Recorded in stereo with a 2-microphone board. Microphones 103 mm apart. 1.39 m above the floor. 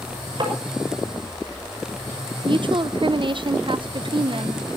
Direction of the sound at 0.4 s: 50° right (ahead or behind).